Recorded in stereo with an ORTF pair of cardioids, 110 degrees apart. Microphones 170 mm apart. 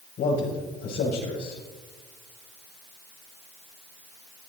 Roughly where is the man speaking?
Left.